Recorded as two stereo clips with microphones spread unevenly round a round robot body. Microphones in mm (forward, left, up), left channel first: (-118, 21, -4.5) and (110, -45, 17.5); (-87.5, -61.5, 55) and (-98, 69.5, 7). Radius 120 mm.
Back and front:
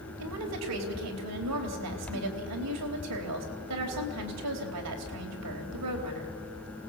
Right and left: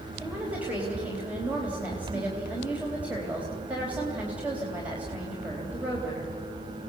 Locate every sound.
0.2 s a woman speaking: 15° left, 3.5 m